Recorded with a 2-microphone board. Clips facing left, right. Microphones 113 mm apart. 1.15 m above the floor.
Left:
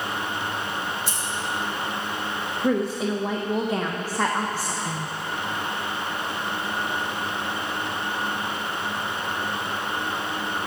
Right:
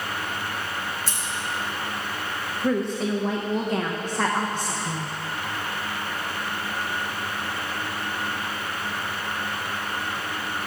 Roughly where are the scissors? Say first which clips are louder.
Left 2 dB; right.